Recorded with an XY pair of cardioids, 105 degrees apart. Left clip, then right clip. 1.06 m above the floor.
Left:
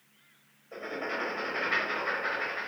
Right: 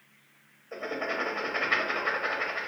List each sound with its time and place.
0.7 s writing: 40° right, 1.1 m